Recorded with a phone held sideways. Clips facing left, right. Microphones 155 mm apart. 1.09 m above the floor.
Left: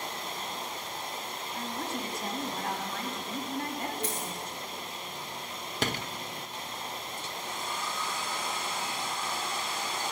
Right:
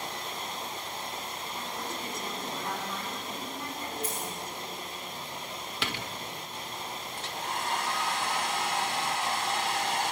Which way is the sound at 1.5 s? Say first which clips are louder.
Left 4 dB; 80° left.